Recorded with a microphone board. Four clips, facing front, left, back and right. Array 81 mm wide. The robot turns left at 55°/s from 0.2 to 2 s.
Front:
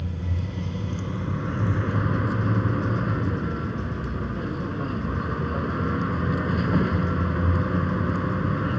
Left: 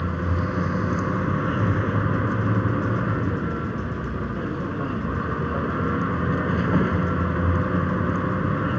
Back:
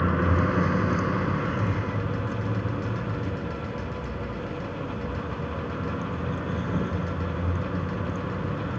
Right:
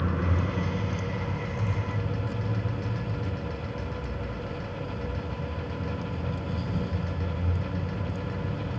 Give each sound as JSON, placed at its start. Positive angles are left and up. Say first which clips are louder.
{"t": 0.0, "sound": "a vehicle", "louder": "left 3 dB, back 10 dB", "azimuth_deg": 170}